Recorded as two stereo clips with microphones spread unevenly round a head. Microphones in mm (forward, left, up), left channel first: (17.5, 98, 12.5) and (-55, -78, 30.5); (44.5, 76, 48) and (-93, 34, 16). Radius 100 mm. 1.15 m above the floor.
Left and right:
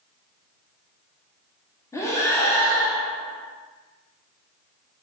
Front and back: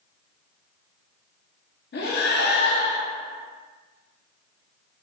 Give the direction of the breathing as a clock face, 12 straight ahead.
12 o'clock.